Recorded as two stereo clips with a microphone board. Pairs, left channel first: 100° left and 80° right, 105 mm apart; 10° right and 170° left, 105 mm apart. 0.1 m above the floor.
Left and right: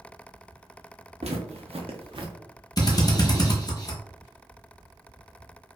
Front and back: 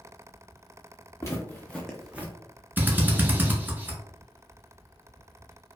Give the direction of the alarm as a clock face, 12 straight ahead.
No alarm in this recording.